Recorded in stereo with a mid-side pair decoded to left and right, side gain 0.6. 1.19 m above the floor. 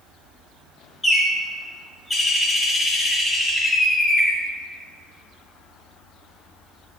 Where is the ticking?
No ticking in this recording.